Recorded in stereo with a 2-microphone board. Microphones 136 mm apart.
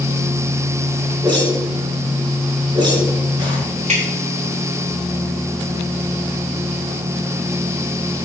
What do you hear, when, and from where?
1.2 s a whoosh: 30° right (ahead or behind), 3.5 m
3.9 s dripping: 55° right (ahead or behind), 5 m